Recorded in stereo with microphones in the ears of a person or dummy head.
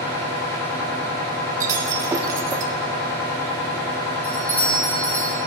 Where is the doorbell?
10° left (ahead or behind), 2 m.